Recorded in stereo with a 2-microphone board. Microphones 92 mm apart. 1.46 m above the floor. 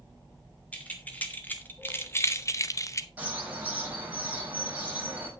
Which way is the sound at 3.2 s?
15° right (ahead or behind).